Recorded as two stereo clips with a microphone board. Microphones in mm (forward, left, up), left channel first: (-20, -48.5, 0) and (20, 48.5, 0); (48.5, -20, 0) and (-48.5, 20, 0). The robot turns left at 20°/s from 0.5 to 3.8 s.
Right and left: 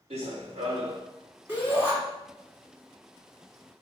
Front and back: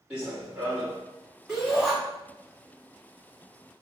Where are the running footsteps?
80° left, 1.6 m; by 1.0 s 70° left, 1.6 m.